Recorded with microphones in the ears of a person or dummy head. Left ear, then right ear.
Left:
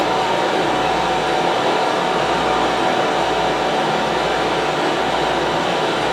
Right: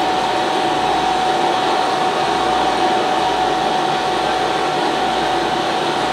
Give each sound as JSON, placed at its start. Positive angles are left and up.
{"t": 0.0, "sound": "a fan", "side_deg": -30, "distance_m": 0.7}